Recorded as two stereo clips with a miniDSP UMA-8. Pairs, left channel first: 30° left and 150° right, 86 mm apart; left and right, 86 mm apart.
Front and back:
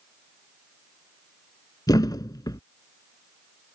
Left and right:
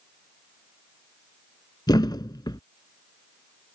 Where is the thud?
65° left.